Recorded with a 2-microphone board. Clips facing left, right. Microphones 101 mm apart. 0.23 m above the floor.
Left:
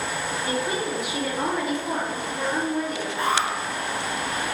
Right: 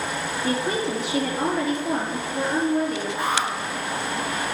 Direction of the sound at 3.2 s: 15° right (ahead or behind).